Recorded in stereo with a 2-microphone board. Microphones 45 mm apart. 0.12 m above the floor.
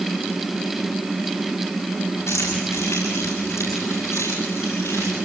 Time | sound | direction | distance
2.3 | keys jangling | 80° left | 9 m